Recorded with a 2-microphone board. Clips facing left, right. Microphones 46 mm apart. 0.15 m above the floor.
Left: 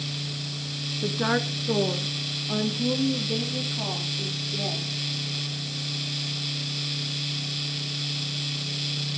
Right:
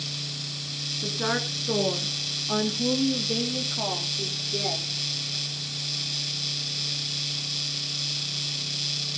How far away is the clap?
No clap in this recording.